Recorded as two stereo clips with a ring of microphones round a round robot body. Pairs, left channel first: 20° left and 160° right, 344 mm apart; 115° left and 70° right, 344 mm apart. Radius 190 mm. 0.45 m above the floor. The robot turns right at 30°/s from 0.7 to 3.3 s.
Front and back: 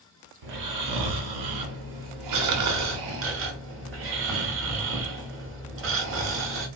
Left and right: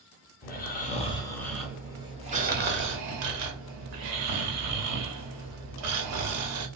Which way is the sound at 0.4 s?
175° left.